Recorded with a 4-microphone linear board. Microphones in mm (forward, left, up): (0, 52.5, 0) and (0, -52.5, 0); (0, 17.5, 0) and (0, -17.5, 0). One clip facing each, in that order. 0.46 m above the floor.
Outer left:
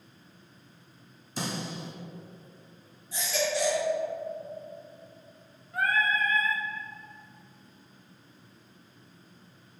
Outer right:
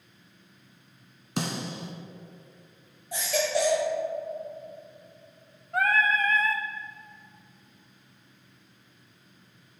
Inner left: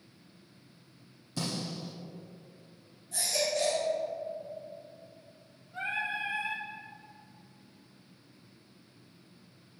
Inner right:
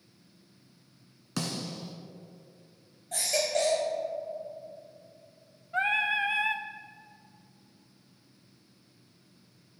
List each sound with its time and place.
1.4 s a snare drum: 90° right, 1.7 m
3.1 s a baby crying: 65° right (ahead or behind), 2 m
5.7 s singing: 85° right, 0.5 m